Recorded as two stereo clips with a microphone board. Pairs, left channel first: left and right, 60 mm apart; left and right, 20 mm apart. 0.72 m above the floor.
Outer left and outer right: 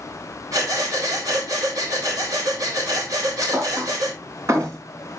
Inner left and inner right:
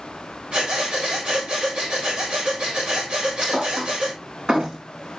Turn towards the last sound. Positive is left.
turn(degrees=-55)  # may be behind; listen again after turning